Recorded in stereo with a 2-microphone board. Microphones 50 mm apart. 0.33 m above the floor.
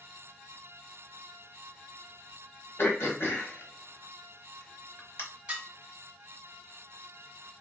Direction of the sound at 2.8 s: 55° left (ahead or behind).